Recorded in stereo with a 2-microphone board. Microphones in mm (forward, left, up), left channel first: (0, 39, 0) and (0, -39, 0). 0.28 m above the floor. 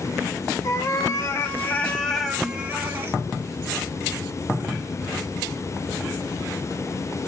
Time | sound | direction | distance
0.6 | a cat meowing | 50° left (ahead or behind) | 1.1 m